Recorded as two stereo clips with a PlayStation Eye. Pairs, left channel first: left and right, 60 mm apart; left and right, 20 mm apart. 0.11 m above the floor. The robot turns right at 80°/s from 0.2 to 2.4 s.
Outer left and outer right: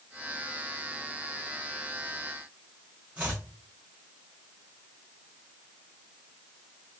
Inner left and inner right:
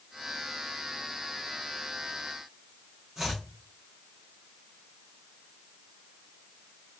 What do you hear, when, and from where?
3.2 s chopping: 20° right (ahead or behind), 1.6 m